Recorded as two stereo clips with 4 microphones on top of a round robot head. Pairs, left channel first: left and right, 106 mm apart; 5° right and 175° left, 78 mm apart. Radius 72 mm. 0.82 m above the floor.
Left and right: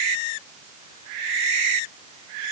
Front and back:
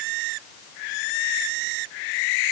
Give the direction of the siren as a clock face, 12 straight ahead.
No siren in this recording.